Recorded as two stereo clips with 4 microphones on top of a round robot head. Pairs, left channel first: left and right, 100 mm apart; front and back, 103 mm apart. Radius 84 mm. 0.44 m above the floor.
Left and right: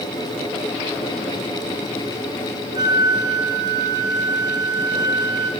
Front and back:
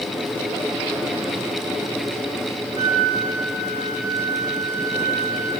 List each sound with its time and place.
2.8 s a flute: 140° right, 3 m